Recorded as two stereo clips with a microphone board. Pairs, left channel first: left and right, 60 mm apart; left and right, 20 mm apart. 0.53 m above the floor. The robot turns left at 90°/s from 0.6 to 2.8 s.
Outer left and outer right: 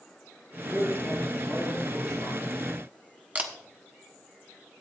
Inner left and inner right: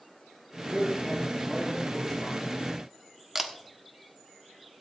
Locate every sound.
0.7 s a woman speaking: 135° left, 3.5 m; by 2.4 s 20° right, 3.5 m
3.4 s a camera shutter: 25° right (ahead or behind), 1.1 m